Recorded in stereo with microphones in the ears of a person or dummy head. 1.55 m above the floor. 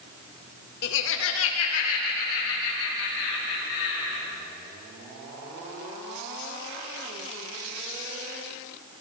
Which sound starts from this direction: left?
Laughter, at 0.8 s.